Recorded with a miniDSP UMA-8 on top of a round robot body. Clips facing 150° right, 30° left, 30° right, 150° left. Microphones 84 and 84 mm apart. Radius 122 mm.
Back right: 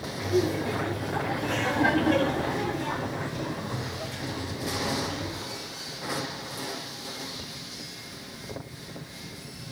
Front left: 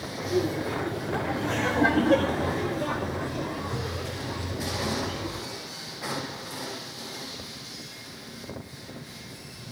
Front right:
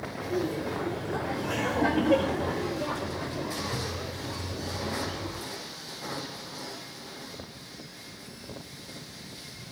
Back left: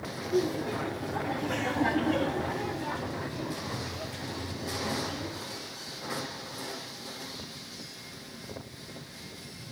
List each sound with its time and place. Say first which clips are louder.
0.2 s laughter: back right 1 dB, back left 2 dB; 45° right, 4.5 m; by 5.4 s straight ahead, 4.5 m